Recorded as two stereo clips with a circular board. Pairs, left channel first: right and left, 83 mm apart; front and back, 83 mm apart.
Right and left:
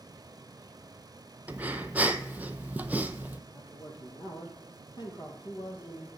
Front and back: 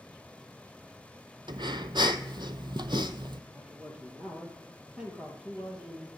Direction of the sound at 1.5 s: 160° left.